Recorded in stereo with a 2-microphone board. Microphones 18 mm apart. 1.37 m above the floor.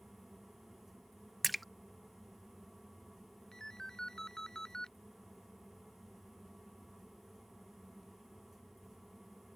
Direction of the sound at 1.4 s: Centre (ahead or behind).